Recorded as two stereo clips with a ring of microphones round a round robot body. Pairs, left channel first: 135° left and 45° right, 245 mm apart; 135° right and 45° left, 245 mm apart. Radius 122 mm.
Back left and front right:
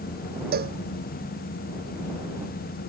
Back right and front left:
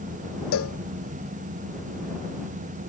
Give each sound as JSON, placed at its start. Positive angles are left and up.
{"t": 0.5, "sound": "a cowbell", "azimuth_deg": -100}